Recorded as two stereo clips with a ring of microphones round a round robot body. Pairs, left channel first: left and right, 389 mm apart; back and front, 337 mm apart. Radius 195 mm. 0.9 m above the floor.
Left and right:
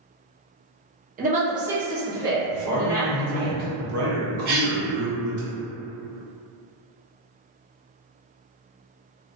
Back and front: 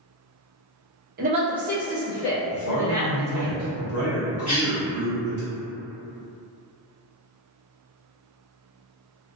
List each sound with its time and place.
1.2 s a woman speaking: 40° right, 0.6 m; by 3.5 s 155° left, 1.3 m
2.5 s a man speaking: 135° right, 0.8 m
4.5 s a cough: 120° right, 1.3 m